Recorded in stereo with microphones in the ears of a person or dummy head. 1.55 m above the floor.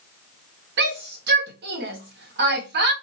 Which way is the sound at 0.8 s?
55° right (ahead or behind).